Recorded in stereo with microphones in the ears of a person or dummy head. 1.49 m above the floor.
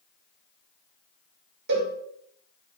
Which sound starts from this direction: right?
A cowbell, at 1.7 s.